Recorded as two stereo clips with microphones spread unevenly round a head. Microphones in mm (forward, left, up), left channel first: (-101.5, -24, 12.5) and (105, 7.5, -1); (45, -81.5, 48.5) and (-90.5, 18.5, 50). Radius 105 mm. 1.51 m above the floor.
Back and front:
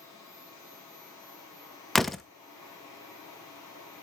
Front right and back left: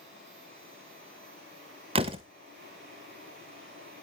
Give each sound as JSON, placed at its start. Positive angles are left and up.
{"t": 0.0, "sound": "a machine running", "azimuth_deg": 115, "distance_m": 8.5}
{"t": 1.9, "sound": "a door slam", "azimuth_deg": 105, "distance_m": 0.6}